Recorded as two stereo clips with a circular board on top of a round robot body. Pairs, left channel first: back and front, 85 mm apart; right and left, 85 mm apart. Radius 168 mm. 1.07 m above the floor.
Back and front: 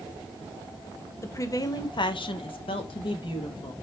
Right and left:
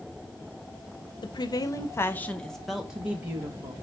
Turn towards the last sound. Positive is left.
turn(degrees=155)